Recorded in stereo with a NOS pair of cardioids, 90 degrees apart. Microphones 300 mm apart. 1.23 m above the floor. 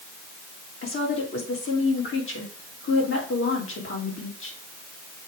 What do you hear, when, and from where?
0.8 s a woman speaking: 45° left, 2.5 m